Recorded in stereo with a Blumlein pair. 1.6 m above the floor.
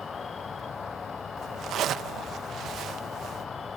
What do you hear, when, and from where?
0.0 s an insect: 20° left
1.4 s a zipper: 30° right